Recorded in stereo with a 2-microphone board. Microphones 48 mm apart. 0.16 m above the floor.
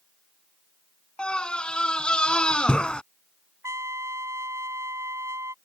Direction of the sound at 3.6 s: 85° right.